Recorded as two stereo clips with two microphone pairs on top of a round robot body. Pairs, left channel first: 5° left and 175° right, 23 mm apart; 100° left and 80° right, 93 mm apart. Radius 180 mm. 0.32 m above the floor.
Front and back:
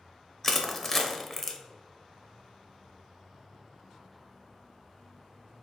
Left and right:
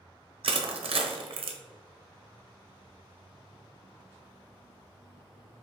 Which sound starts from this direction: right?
Crushing, at 0.4 s.